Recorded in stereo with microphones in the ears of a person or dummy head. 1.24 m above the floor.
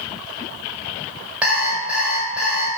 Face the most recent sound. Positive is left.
turn(degrees=-10)  # may be behind; listen again after turning